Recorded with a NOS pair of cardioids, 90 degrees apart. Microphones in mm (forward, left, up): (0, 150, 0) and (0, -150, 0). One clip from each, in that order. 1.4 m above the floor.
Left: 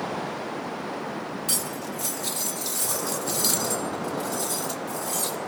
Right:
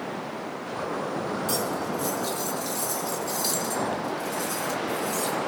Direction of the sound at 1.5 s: 40° left.